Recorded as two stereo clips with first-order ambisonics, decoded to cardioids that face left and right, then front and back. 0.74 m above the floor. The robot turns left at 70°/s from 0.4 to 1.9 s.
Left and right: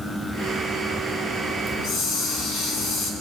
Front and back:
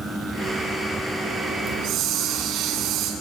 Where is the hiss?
155° left, 6 m; by 3.1 s 140° left, 6 m.